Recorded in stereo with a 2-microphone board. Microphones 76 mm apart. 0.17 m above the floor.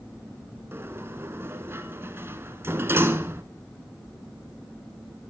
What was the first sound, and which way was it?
A sliding door, 30° right (ahead or behind).